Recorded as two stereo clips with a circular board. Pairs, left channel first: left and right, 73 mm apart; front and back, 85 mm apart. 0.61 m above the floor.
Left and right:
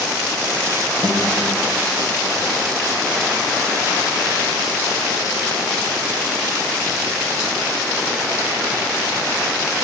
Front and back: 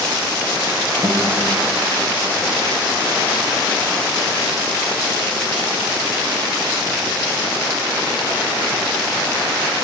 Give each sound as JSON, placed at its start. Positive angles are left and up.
{"t": 1.0, "sound": "a guitar", "azimuth_deg": -130, "distance_m": 2.0}